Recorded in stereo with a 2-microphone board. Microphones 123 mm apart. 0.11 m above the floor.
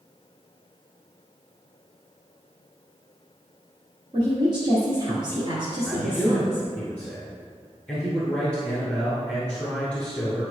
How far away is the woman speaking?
About 1.8 m.